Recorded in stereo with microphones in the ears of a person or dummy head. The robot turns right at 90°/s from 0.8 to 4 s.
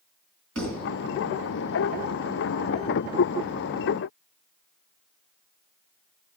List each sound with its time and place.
0.6 s a thud: 75° right (ahead or behind), 3.5 m